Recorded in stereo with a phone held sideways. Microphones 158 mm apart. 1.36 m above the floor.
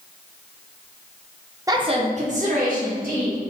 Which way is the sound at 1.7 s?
20° right (ahead or behind).